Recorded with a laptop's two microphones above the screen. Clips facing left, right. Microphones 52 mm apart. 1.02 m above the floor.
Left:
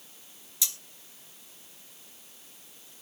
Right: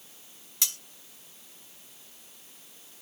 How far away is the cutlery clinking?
About 0.9 m.